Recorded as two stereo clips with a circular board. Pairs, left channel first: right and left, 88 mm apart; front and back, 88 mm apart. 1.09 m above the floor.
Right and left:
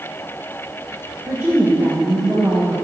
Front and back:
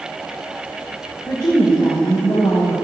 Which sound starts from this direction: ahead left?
A woman speaking, at 1.3 s.